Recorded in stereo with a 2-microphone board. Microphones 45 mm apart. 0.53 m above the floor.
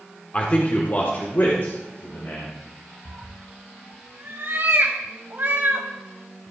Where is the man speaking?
30° left (ahead or behind), 1.3 m; by 2.5 s 70° left (ahead or behind), 2.5 m.